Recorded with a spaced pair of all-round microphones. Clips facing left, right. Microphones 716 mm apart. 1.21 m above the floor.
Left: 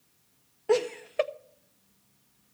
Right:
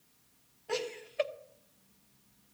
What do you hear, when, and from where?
0.7 s laughter: 75° left (ahead or behind), 0.8 m